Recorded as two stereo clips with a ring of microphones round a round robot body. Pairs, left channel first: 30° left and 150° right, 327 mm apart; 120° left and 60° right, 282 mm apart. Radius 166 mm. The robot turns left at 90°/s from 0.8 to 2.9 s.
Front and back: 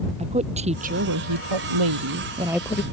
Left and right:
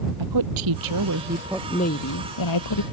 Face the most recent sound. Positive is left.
turn(degrees=95)